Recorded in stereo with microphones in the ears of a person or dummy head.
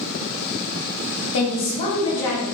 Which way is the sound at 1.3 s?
65° left (ahead or behind).